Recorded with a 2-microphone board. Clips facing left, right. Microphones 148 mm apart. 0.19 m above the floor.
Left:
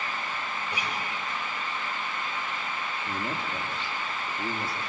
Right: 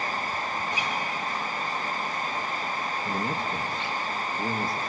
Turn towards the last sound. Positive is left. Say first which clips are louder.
# right 3 dB
turn(degrees=-40)  # may be behind; listen again after turning